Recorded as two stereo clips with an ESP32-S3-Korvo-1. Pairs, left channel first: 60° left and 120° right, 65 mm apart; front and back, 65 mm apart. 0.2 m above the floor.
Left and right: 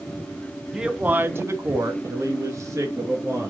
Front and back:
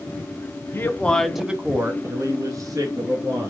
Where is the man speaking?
45° right, 1.4 m; by 3.5 s 165° right, 3.5 m.